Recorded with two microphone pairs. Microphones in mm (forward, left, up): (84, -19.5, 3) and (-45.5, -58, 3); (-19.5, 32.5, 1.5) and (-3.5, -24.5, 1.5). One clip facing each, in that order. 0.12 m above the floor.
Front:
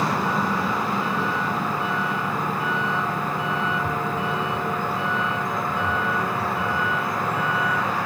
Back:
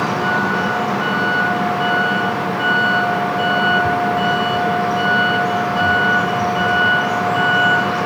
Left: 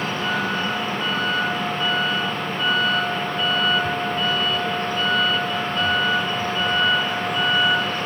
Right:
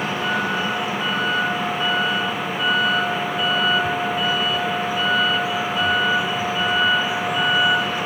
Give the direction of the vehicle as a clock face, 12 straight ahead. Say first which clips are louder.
Back 5 dB, right 1 dB; 5 o'clock.